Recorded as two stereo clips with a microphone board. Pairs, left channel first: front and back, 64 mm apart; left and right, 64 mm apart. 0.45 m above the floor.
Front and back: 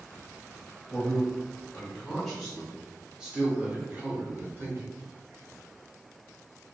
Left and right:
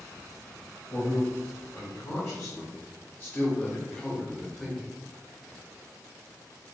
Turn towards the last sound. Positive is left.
turn(degrees=180)